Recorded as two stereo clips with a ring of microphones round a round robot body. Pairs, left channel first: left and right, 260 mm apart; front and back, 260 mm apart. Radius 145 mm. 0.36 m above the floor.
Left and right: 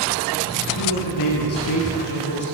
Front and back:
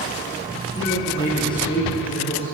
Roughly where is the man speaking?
Left.